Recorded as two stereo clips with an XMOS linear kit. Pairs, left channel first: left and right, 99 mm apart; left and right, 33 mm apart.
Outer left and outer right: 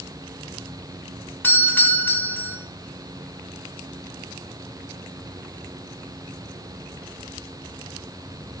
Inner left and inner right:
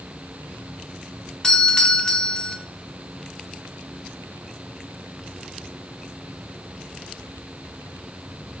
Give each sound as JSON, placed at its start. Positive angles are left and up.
{"t": 1.4, "sound": "a doorbell", "side_deg": 20, "distance_m": 1.4}